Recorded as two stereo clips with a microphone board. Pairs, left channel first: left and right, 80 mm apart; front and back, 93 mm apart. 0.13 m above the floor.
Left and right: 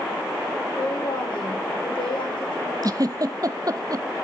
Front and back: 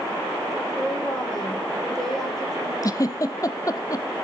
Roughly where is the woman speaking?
Left.